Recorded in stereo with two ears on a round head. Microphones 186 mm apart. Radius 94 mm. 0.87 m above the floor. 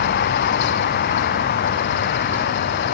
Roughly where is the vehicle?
Left.